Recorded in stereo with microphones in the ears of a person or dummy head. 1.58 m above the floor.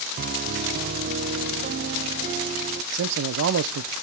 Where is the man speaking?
65° right (ahead or behind), 0.7 m.